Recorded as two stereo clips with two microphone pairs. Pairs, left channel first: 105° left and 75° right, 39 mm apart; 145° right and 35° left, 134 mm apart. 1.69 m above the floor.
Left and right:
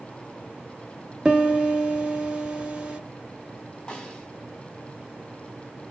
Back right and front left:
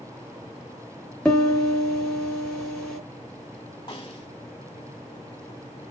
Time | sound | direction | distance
1.2 | a piano | 75° right | 1.5 m
3.9 | a snare drum | 175° left | 2.5 m